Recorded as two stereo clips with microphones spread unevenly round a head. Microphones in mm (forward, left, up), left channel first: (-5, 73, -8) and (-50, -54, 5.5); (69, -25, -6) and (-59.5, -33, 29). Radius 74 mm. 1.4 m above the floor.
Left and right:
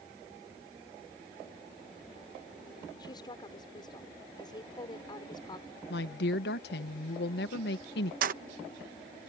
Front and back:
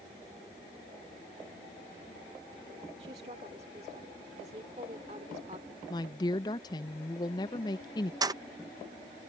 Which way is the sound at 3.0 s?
130° left.